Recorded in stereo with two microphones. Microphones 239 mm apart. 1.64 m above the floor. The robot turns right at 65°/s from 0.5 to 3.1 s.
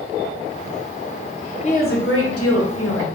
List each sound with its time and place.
1.6 s a woman speaking: 25° left, 0.9 m; by 3.1 s 120° left, 0.9 m